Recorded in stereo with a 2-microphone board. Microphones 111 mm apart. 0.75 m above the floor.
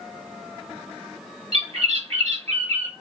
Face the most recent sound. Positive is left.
turn(degrees=-75)  # may be behind; listen again after turning